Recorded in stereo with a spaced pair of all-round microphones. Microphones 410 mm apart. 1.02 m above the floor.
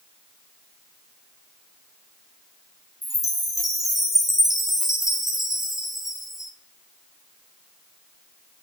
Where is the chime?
Centre (ahead or behind), 1.7 m.